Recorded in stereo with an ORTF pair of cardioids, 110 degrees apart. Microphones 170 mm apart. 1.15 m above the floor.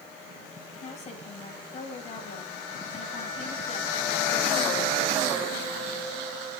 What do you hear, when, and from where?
0.8 s a woman speaking: 40° left, 7.5 m